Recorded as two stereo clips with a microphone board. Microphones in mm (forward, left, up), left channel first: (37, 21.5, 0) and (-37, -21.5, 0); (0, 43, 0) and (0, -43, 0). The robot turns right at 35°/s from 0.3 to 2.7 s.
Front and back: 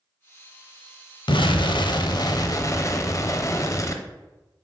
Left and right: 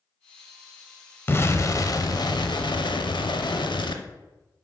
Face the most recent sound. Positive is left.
turn(degrees=80)